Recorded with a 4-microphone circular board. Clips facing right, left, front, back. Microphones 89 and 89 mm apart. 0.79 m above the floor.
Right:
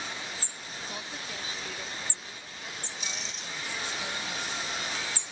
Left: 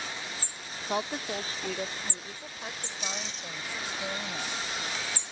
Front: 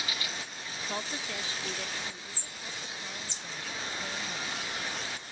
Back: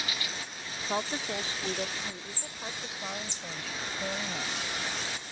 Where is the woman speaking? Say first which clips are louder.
Left 12 dB, back 5 dB; 115° left; by 4.5 s 150° left.